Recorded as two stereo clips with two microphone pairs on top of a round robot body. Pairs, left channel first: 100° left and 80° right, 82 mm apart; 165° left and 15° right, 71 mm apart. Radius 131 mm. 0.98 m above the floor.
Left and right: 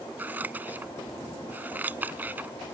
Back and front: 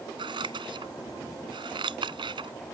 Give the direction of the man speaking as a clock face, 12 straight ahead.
I don't hear a man speaking.